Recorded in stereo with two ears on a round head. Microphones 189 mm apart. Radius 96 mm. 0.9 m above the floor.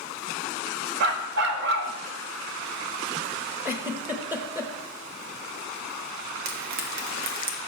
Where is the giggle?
10° right (ahead or behind), 1.1 m.